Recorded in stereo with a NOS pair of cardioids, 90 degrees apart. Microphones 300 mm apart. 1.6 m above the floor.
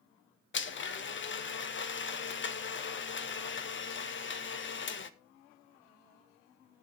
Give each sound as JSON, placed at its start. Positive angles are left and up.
{"t": 0.5, "sound": "a blender", "azimuth_deg": 40, "distance_m": 1.1}